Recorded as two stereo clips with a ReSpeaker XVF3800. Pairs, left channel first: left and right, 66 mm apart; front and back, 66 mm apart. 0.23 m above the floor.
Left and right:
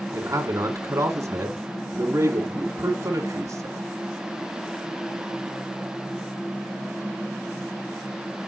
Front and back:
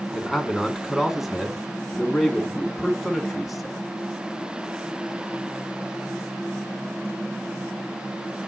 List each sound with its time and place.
0.1 s a man speaking: 90° right, 2.0 m